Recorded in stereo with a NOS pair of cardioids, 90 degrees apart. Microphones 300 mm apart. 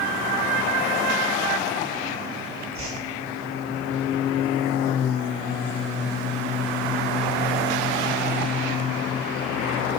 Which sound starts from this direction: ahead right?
A whoosh, at 2.8 s.